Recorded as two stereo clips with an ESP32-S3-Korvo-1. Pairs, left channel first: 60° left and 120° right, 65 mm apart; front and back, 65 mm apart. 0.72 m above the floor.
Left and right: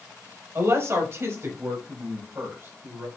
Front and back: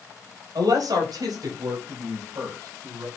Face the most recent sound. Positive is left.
turn(degrees=-170)